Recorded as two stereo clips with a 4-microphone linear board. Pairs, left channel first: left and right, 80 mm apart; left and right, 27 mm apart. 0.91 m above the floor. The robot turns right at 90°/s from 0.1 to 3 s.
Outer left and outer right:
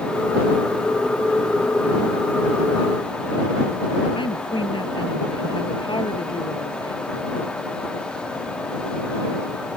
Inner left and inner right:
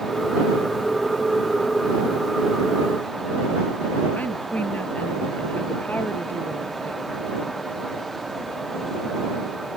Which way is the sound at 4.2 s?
75° left (ahead or behind).